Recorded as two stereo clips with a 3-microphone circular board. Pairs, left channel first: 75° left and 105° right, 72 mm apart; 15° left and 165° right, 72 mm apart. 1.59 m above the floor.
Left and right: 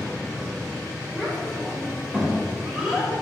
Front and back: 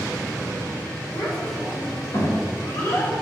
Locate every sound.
1.1 s a child speaking: 5° right, 4 m; by 3.1 s 25° right, 4.5 m